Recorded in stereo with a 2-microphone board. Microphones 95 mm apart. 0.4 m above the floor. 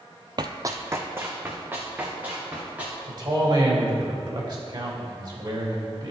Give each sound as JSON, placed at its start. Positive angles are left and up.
{"t": 0.4, "sound": "running footsteps", "side_deg": -45, "distance_m": 0.5}
{"t": 3.1, "sound": "a man speaking", "side_deg": -50, "distance_m": 2.0}